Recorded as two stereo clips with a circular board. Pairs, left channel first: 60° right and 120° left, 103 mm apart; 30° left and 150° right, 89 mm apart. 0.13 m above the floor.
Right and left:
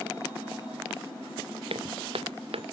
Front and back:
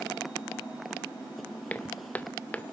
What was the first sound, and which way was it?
Footsteps, 100° left.